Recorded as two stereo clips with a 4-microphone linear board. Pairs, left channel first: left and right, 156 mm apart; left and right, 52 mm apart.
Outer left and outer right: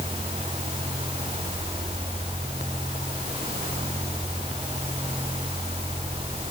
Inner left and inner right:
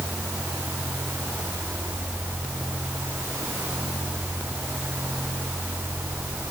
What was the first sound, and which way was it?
Only background noise.